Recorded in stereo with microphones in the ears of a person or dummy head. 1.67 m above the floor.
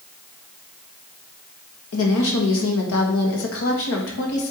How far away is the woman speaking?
About 2 m.